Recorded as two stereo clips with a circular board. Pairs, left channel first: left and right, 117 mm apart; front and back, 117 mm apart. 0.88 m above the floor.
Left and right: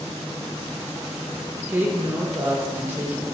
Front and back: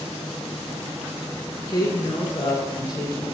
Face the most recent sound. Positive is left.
turn(degrees=-30)